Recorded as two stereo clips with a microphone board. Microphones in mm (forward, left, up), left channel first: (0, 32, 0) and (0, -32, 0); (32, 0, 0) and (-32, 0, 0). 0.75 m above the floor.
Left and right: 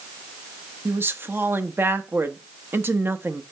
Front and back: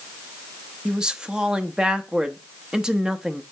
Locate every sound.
0.8 s a woman speaking: 110° right, 0.7 m